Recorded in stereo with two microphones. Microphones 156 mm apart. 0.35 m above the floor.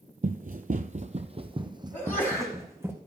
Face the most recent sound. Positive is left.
turn(degrees=15)  # may be behind; listen again after turning